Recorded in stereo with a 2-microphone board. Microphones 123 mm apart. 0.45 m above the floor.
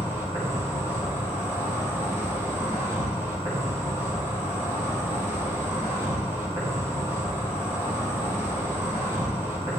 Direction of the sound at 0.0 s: 20° right (ahead or behind).